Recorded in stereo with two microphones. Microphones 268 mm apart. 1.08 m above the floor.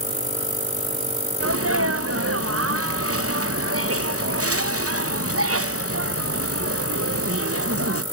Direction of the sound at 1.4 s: 55° right (ahead or behind).